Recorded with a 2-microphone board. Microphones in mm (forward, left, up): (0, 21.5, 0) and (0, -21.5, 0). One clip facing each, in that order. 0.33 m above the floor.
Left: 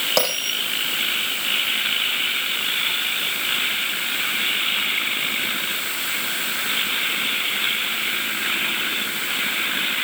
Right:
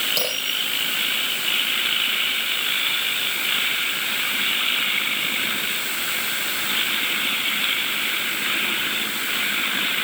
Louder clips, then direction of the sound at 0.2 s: Left 3 dB; 60° left (ahead or behind).